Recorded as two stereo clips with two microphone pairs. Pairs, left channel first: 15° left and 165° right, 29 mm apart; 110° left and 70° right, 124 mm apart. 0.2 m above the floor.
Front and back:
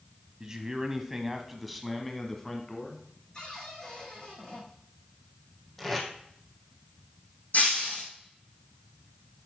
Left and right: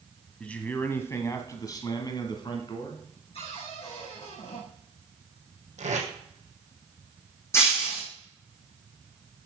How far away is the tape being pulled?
About 2.5 m.